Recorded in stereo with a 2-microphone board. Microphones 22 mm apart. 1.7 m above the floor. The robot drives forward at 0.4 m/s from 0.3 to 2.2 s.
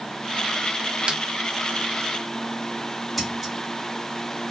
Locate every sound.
1.1 s a snare drum: 50° right (ahead or behind), 0.5 m; by 1.2 s 45° right (ahead or behind), 0.6 m
3.2 s scissors: 5° right (ahead or behind), 1.4 m